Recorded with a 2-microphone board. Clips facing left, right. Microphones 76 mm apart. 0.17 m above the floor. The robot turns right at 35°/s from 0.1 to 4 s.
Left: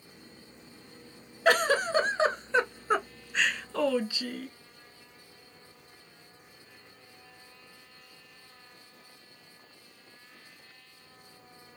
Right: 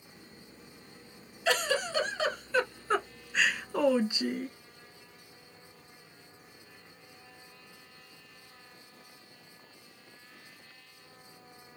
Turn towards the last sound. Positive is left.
turn(degrees=-155)